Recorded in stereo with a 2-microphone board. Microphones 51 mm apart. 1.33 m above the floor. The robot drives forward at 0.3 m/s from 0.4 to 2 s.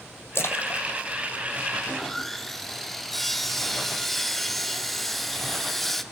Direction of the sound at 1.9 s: 5° left (ahead or behind).